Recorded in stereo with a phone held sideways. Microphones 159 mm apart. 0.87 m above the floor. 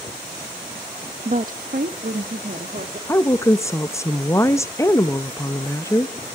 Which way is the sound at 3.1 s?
20° left (ahead or behind).